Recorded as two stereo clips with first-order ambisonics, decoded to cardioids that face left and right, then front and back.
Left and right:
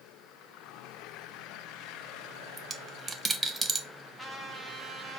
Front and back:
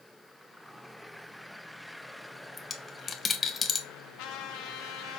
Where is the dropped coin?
45° right, 0.5 m.